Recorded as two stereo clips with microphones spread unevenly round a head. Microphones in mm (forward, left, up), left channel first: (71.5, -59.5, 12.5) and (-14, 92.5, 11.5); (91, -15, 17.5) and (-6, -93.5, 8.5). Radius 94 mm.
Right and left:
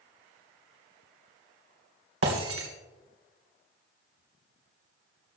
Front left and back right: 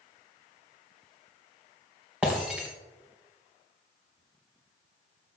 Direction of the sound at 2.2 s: 135° left.